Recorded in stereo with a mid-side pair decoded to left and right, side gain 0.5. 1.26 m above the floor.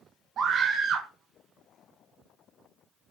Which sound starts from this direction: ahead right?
A scream, at 0.4 s.